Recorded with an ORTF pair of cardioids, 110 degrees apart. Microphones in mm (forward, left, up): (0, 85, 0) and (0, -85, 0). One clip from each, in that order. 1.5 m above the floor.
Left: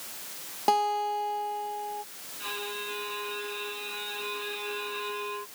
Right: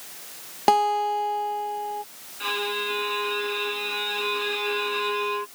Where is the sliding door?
I don't hear a sliding door.